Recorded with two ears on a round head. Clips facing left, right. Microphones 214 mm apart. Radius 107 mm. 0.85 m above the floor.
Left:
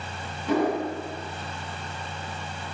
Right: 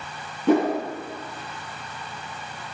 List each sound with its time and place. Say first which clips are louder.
0.5 s a whoosh: right 4 dB; 45° right (ahead or behind), 1.3 m